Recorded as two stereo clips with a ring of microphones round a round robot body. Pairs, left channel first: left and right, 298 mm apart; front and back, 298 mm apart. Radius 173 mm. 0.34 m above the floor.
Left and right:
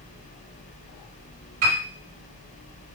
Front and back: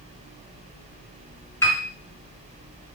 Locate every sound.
1.6 s a piano: 80° right, 1.5 m